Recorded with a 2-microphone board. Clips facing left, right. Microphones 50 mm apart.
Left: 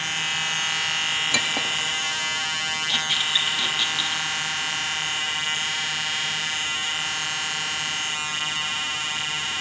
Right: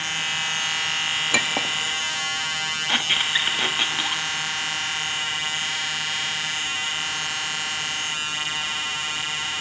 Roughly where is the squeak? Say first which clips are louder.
Right 4 dB; right.